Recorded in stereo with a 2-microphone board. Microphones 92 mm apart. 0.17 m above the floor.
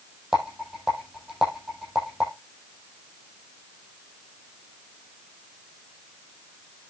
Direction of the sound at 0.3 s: 10° right (ahead or behind).